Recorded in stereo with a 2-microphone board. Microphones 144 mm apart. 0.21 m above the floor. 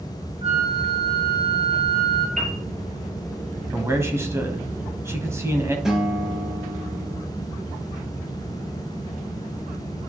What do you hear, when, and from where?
0.4 s a flute: 45° right (ahead or behind), 2.5 m
2.4 s a piano: 60° right (ahead or behind), 2.5 m
3.7 s a man speaking: 20° right (ahead or behind), 1.3 m
5.8 s a guitar: 5° right (ahead or behind), 2 m